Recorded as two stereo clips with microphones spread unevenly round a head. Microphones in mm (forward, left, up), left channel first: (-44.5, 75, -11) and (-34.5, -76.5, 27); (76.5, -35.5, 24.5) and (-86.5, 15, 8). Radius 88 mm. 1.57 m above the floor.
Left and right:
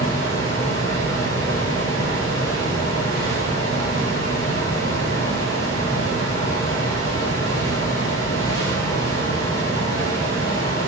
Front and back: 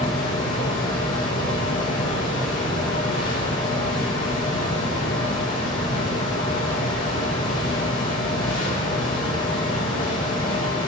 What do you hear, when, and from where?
0.0 s a fan: 50° left, 8 m